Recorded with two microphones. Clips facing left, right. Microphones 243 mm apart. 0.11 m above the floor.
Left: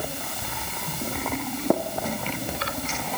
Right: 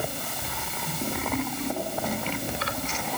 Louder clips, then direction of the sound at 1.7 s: Left 14 dB; 65° left (ahead or behind).